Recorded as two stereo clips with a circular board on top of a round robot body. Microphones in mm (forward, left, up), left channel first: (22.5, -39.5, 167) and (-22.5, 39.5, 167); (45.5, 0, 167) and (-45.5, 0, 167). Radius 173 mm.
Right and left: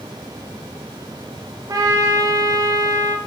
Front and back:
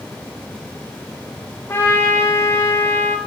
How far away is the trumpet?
About 1.2 m.